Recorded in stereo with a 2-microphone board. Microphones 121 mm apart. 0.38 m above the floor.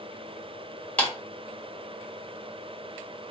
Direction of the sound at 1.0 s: 10° left (ahead or behind).